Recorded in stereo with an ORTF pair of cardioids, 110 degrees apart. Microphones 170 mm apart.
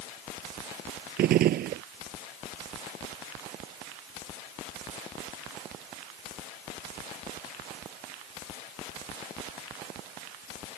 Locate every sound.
1.2 s a gunshot: 65° right